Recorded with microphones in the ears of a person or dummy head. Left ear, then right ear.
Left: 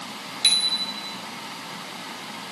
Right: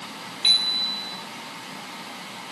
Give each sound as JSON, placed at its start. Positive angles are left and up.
{"t": 0.4, "sound": "a bicycle bell", "side_deg": 15, "distance_m": 2.5}